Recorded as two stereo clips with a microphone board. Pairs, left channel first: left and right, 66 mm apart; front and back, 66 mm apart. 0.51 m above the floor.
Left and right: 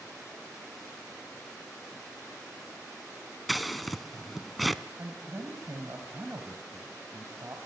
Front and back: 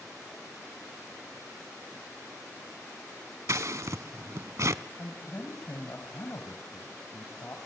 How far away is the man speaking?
About 2.5 m.